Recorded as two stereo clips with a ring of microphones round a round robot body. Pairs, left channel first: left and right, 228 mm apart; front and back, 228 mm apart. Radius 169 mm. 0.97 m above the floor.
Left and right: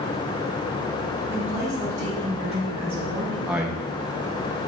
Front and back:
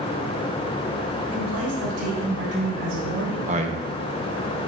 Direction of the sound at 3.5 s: 170° right.